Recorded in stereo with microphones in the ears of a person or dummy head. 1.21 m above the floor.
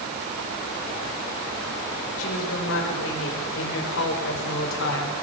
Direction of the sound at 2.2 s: 75° left (ahead or behind).